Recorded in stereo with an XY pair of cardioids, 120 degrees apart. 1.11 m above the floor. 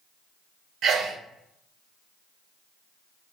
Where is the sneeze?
60° right, 0.6 m.